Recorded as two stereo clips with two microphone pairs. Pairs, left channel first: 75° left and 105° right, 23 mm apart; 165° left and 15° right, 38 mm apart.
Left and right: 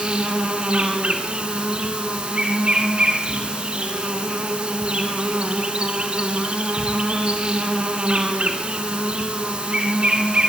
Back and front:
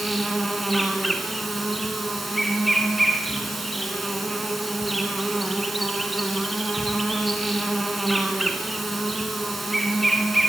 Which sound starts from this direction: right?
An insect, at 0.0 s.